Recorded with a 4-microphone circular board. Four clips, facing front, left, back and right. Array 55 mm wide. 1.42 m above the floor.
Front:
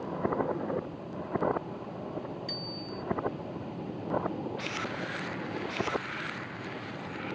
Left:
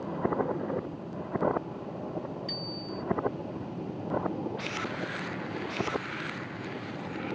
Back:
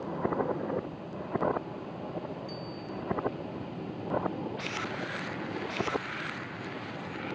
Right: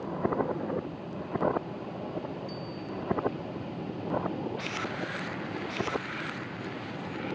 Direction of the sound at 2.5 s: 50° left.